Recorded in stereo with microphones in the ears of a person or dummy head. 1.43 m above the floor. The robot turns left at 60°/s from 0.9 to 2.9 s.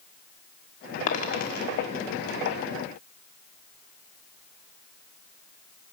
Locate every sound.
1.1 s a dropped coin: 50° left (ahead or behind), 1.8 m; by 1.7 s 70° left (ahead or behind), 1.8 m